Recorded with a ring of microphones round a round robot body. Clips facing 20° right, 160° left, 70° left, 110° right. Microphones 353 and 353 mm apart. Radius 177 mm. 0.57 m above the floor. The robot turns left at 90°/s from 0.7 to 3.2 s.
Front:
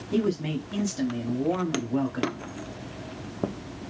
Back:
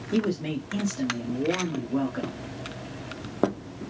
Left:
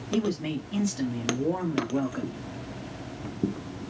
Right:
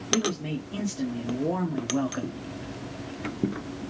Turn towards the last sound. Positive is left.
turn(degrees=180)